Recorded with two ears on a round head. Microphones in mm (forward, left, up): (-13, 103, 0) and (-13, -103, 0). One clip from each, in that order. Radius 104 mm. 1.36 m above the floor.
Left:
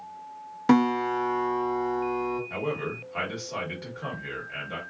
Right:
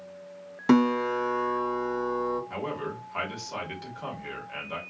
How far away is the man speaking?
About 1.3 m.